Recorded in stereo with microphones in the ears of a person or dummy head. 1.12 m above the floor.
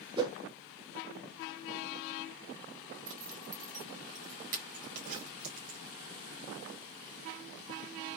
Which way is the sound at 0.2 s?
30° right (ahead or behind).